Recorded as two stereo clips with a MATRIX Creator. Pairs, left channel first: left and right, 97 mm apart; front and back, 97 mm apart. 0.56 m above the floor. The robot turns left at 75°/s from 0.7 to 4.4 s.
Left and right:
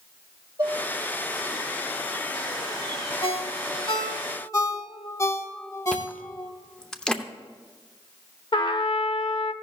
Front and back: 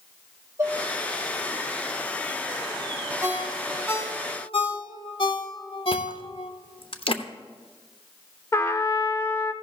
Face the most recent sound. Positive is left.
turn(degrees=60)